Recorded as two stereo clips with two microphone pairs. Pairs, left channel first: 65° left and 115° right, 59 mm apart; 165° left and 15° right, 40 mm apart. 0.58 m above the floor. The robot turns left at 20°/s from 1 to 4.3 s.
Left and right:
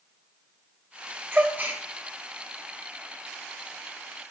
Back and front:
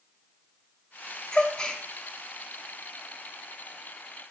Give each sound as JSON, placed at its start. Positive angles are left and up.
{"t": 1.3, "sound": "a gasp", "azimuth_deg": -135, "distance_m": 1.0}